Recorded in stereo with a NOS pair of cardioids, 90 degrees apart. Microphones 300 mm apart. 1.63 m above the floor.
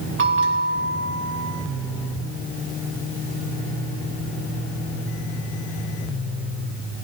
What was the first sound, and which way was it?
A bell, 45° right.